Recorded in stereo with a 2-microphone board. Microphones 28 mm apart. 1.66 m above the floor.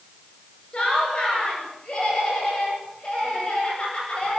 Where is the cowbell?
I don't hear a cowbell.